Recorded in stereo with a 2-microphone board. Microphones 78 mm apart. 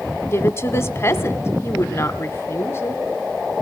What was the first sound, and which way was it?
A woman speaking, 35° left (ahead or behind).